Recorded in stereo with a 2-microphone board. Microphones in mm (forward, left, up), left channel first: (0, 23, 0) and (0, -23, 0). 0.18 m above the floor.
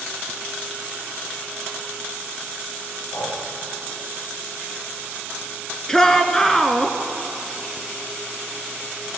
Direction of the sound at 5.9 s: 10° left (ahead or behind).